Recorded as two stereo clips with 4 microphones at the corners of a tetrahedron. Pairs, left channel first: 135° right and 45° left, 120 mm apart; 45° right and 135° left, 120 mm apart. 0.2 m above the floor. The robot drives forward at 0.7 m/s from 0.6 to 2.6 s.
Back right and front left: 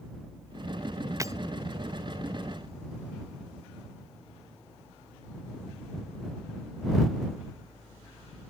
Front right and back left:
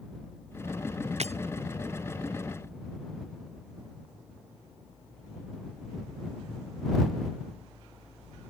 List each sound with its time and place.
1.2 s breaking glass: 110° left